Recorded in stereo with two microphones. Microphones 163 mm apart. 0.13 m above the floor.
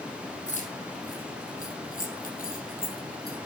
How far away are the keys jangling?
About 3.5 m.